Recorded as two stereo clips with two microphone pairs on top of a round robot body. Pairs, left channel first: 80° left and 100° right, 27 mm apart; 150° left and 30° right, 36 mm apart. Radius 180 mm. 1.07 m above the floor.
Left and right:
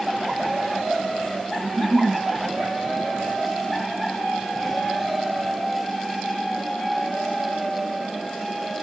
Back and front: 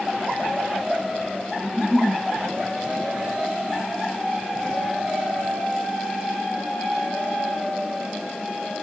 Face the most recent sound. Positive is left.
turn(degrees=-115)